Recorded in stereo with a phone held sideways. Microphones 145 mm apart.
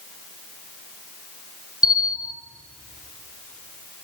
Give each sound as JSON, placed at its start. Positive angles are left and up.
{"t": 1.8, "sound": "a bell", "side_deg": -5, "distance_m": 0.9}